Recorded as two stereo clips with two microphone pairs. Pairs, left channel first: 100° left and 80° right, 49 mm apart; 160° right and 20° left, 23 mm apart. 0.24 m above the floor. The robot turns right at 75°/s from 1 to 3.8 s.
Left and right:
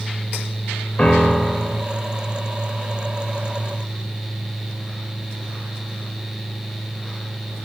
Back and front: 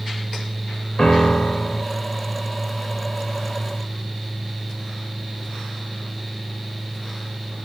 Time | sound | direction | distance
1.0 | a piano | 160° left | 0.6 m